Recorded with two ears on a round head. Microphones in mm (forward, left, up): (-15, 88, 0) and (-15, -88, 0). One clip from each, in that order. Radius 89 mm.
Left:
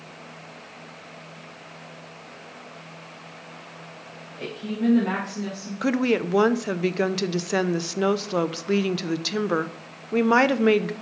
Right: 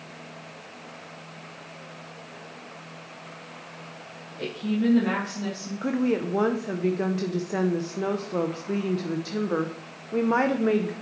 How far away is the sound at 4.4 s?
About 1.7 m.